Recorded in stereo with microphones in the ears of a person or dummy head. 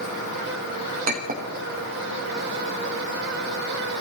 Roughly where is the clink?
Right.